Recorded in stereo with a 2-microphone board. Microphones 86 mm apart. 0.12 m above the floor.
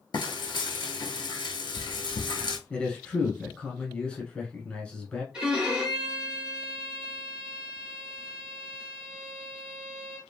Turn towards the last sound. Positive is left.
turn(degrees=-10)  # may be behind; listen again after turning